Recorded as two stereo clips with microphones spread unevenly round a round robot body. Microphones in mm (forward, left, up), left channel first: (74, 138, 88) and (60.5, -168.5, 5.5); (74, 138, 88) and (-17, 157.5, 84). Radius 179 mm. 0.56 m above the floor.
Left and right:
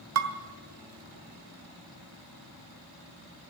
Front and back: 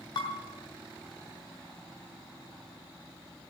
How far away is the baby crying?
I don't hear a baby crying.